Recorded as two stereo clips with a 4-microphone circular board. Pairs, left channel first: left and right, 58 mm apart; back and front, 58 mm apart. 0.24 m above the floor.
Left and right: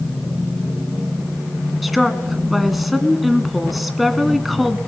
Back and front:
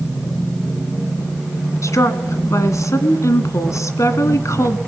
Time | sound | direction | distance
1.8 | a woman speaking | straight behind | 1.9 m